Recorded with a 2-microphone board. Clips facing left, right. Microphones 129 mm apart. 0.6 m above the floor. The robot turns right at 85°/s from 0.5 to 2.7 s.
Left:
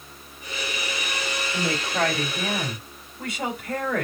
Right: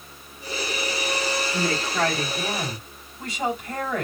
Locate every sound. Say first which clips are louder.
1.5 s a woman speaking: left 2 dB; 5° left, 3 m; by 4.0 s 105° left, 3 m